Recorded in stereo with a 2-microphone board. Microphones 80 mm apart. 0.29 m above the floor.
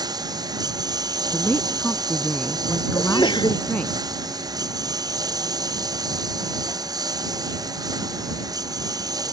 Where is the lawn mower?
55° right (ahead or behind); by 9.3 s 50° right (ahead or behind).